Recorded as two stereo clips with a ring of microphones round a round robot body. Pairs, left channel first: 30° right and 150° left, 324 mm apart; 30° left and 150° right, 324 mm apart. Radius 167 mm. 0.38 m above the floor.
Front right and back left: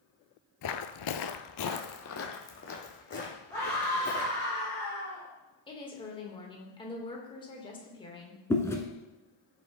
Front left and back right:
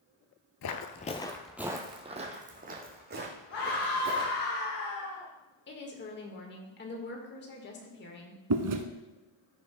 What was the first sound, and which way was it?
Footsteps, straight ahead.